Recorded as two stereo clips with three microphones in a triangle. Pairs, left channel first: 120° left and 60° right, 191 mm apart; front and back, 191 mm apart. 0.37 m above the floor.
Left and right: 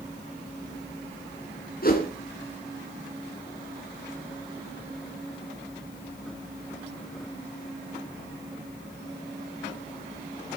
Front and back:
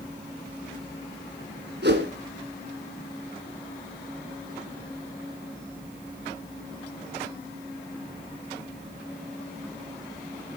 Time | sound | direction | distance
1.8 | a whoosh | 155° left | 1.7 m